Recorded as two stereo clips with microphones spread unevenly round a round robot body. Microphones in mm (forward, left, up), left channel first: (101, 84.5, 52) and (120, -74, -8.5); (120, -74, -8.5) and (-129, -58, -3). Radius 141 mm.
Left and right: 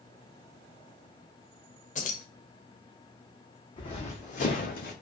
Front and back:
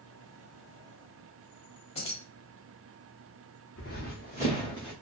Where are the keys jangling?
50° left, 0.8 m.